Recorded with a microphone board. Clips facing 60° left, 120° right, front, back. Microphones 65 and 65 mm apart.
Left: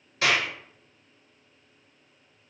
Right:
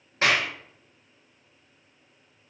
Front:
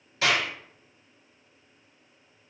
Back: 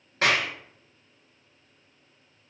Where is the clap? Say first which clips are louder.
Right 1 dB, back 1 dB; 160° right, 1.5 m.